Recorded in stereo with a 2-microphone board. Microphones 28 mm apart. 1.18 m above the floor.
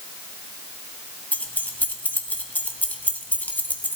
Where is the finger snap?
No finger snap in this recording.